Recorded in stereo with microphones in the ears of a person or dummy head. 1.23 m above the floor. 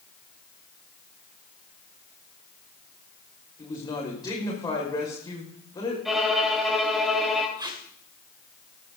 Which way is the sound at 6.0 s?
Centre (ahead or behind).